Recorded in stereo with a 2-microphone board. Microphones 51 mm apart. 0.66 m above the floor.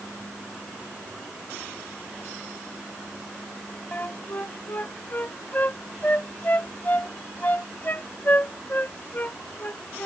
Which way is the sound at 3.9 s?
40° left (ahead or behind).